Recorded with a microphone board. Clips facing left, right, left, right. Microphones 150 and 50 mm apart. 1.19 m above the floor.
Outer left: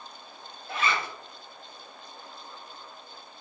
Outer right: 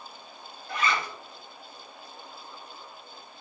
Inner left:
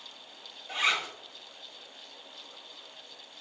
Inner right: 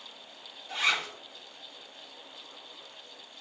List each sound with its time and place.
0.7 s a zipper: 30° left (ahead or behind), 0.9 m